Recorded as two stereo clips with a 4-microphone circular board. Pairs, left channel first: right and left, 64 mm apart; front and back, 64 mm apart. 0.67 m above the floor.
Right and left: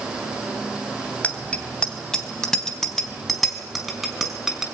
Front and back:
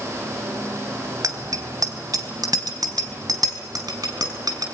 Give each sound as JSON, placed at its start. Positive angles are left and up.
{"t": 1.2, "sound": "a bicycle bell", "azimuth_deg": -160, "distance_m": 3.0}